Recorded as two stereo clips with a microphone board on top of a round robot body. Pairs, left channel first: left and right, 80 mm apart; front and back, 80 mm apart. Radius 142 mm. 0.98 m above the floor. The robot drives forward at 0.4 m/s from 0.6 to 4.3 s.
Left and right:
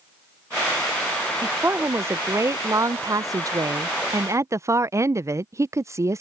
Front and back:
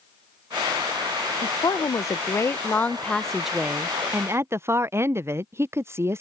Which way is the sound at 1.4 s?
30° right.